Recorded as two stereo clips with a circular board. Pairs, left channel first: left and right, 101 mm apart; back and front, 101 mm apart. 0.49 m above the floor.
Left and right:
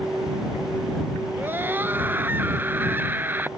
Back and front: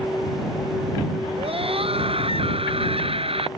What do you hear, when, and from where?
1.4 s a scream: 20° right